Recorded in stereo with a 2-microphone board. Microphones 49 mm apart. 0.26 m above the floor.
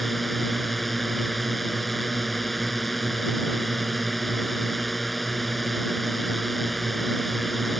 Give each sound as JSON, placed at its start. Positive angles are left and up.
{"t": 0.0, "sound": "a drone", "side_deg": 0}